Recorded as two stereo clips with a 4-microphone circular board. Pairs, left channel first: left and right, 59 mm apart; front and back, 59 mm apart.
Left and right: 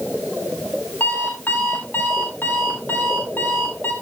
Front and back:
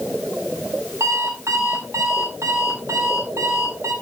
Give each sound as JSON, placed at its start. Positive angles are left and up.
{"t": 1.0, "sound": "an alarm clock", "azimuth_deg": 145, "distance_m": 6.0}